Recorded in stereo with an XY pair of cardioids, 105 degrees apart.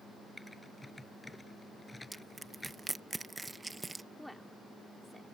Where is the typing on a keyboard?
15° left.